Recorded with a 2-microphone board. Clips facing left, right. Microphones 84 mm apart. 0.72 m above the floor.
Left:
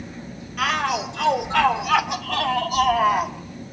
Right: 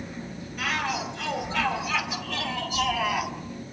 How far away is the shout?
About 4 m.